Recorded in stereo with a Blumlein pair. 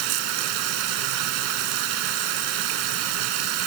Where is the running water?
40° right.